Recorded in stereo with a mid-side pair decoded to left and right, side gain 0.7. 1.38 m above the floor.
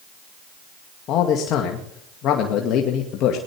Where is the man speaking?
50° left, 2 m.